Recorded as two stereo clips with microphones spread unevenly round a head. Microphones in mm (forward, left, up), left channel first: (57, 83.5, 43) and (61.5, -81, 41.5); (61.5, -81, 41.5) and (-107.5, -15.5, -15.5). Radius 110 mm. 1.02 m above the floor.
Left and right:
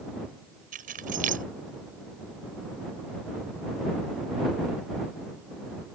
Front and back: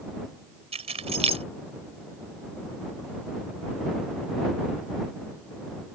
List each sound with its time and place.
0.7 s keys jangling: 140° right